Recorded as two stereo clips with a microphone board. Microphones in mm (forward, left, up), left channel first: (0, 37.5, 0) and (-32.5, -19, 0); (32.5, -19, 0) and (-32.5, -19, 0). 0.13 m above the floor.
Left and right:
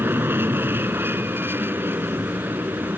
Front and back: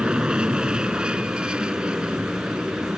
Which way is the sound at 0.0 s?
115° right.